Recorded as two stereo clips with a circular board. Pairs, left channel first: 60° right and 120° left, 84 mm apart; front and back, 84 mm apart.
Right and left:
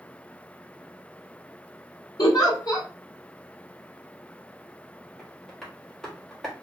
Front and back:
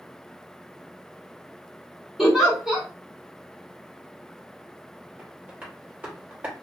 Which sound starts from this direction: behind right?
Tapping, at 5.2 s.